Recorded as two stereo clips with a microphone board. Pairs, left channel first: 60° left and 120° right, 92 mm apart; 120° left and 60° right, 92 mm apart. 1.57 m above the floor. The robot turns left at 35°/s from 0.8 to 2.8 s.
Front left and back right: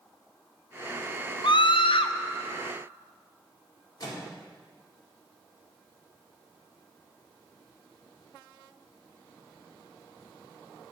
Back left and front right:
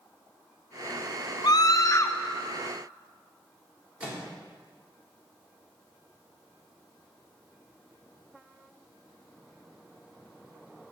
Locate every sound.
1.4 s a scream: 85° left, 0.5 m; by 2.2 s 60° left, 0.5 m
4.0 s a microwave: 15° left, 1.8 m